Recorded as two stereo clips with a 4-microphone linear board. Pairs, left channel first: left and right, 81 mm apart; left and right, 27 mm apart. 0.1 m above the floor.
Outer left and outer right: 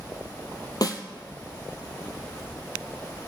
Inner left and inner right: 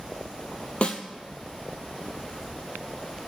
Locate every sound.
0.8 s a snare drum: 50° left (ahead or behind), 0.9 m